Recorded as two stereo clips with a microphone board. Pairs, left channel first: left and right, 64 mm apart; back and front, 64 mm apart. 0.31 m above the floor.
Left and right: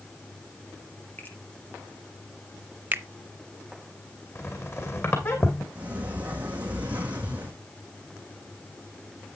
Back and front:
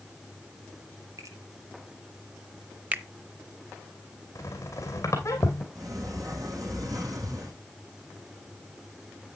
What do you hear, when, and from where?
1.2 s a finger snap: 30° left, 5.5 m
2.9 s a finger snap: 55° right, 0.8 m
4.3 s a squeak: 140° left, 2.5 m
5.8 s a sliding door: 25° right, 3 m